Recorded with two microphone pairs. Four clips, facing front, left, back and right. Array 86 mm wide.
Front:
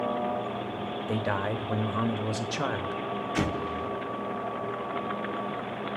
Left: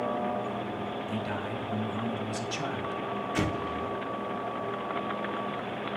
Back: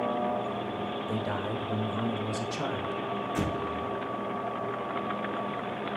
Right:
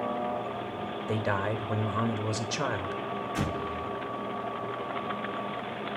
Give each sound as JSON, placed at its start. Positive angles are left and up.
{"t": 1.1, "sound": "a man speaking", "azimuth_deg": -30, "distance_m": 1.1}
{"t": 3.4, "sound": "an explosion", "azimuth_deg": 30, "distance_m": 1.2}